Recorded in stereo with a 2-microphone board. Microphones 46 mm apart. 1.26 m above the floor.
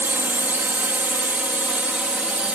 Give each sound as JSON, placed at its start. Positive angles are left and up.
{"t": 0.0, "sound": "a drone", "side_deg": -50}